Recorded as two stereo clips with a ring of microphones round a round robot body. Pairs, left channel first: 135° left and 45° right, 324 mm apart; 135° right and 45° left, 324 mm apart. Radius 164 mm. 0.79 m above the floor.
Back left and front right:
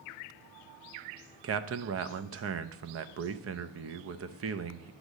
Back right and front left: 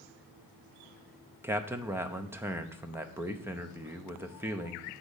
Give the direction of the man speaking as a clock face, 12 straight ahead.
1 o'clock.